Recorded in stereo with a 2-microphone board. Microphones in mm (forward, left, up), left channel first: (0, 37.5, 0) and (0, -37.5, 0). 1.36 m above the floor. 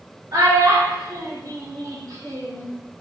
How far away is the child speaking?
About 0.9 m.